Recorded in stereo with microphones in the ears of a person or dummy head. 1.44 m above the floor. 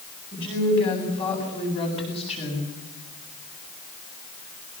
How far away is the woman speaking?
About 8 m.